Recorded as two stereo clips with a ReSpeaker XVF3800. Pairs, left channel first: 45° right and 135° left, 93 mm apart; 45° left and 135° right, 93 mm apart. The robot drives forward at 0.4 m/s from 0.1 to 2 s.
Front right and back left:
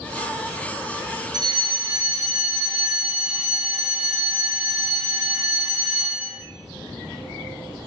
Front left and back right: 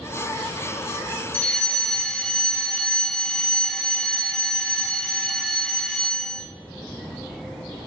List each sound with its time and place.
1.3 s a fire alarm: 115° left, 3 m; by 6.4 s 120° left, 3 m